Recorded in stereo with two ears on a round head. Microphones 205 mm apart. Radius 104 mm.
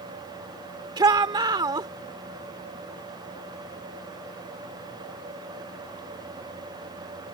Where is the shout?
20° right (ahead or behind).